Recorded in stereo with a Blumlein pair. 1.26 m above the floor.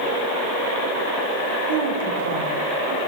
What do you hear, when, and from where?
1.7 s a woman speaking: 55° right, 3 m